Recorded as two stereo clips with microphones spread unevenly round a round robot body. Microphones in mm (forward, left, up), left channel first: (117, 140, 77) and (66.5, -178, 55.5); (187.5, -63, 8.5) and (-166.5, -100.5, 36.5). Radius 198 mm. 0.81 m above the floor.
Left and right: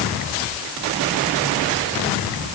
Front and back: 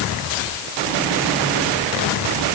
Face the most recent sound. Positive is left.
No sound to turn to.